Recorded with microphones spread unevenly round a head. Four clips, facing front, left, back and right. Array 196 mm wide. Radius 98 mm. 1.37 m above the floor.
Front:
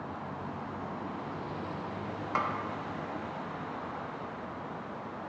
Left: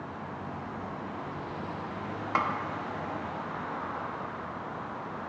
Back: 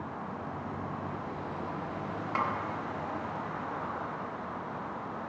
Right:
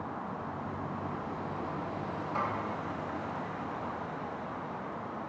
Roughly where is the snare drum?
Left.